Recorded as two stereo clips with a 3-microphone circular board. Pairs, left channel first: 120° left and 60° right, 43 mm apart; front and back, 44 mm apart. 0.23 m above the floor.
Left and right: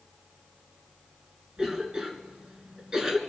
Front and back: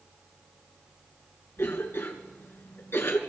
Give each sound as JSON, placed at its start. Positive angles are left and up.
{"t": 1.6, "sound": "a cough", "azimuth_deg": 15, "distance_m": 3.0}